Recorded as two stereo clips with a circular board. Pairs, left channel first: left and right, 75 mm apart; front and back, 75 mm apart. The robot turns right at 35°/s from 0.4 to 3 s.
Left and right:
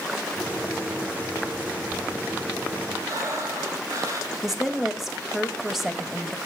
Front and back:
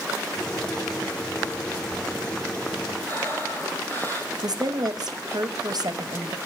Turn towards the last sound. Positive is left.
turn(degrees=-175)